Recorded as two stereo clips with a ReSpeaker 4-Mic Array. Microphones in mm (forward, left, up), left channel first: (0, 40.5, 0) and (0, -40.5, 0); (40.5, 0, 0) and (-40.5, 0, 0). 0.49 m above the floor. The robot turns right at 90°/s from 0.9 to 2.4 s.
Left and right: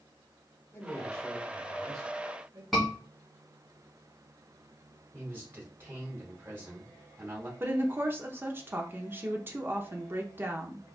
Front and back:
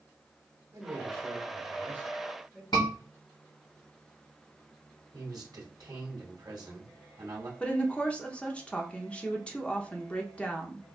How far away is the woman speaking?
About 0.7 m.